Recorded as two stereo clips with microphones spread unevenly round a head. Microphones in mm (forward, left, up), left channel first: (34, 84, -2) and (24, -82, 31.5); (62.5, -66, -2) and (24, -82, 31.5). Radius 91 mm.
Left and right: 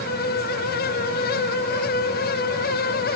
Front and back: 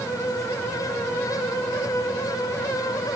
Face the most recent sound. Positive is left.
No sound to turn to.